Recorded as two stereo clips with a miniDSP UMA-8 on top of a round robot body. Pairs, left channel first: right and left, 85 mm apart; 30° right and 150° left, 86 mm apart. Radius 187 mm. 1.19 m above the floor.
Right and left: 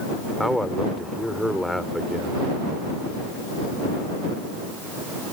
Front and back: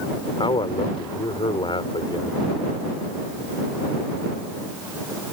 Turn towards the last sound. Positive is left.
turn(degrees=0)